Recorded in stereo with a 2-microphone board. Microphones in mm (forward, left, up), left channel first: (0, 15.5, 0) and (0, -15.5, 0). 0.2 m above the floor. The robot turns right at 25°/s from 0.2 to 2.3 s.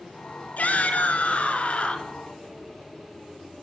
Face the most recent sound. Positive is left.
turn(degrees=140)